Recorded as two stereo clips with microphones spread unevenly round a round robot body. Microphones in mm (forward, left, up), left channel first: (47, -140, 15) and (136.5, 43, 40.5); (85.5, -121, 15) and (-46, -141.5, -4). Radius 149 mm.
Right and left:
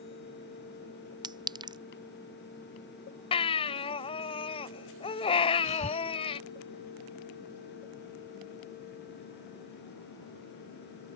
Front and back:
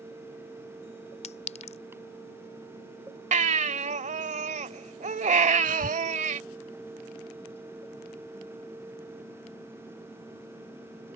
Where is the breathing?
175° left.